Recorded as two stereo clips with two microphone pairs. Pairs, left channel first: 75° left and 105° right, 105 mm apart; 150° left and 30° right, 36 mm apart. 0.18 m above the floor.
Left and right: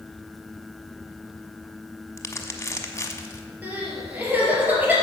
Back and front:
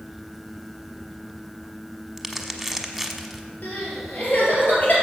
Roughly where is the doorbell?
No doorbell in this recording.